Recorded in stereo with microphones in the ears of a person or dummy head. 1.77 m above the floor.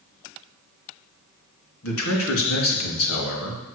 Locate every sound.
1.8 s a man speaking: 90° left, 3.5 m